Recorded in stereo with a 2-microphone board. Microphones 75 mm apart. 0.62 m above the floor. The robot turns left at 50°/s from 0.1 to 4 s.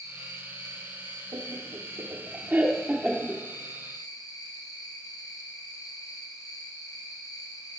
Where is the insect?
45° right, 3 m; by 7.8 s 120° left, 3 m.